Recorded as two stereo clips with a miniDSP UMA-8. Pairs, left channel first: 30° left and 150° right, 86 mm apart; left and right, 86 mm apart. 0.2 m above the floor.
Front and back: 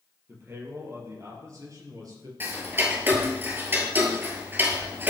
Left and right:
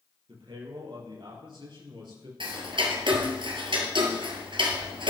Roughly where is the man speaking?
Right.